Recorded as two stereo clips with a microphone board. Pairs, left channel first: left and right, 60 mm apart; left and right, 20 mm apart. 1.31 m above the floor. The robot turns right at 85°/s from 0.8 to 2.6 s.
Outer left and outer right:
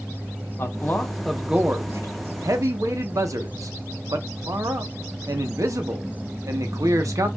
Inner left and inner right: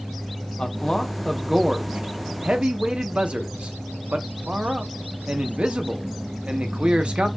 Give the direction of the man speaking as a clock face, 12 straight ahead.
7 o'clock.